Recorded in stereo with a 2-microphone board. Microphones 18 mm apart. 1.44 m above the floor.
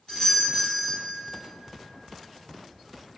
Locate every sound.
0.1 s a doorbell: 45° left (ahead or behind), 1.7 m